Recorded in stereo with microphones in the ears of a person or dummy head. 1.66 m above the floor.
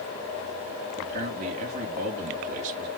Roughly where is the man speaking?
Right.